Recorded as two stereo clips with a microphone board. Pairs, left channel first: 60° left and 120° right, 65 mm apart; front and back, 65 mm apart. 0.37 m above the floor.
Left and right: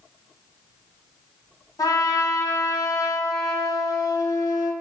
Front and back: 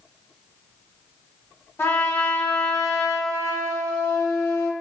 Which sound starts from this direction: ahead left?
A trumpet, at 1.8 s.